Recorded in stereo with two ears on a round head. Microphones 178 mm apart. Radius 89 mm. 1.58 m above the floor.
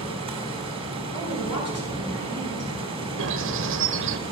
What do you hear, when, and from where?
0.0 s running water: 25° right (ahead or behind), 2.5 m
1.1 s a woman speaking: 80° left, 5 m
3.2 s a bird: 65° right (ahead or behind), 0.9 m